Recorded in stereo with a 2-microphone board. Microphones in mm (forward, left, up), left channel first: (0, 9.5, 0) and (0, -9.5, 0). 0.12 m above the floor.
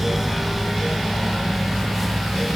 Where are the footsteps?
No footsteps in this recording.